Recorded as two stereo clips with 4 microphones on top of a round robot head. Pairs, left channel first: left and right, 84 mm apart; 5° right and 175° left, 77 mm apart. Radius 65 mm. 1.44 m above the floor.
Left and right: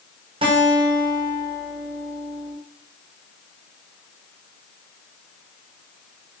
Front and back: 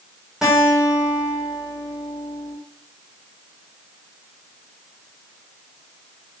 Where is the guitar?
100° right, 5.5 m.